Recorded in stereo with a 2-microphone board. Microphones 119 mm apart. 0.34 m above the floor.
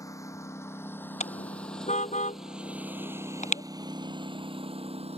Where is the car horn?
75° left (ahead or behind).